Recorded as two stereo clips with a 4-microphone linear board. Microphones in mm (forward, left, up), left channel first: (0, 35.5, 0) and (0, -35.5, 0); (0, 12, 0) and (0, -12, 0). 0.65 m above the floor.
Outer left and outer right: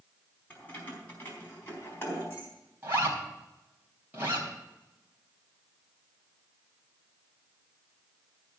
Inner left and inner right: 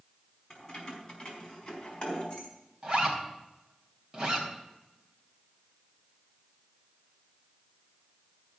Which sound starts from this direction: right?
A zipper, at 2.8 s.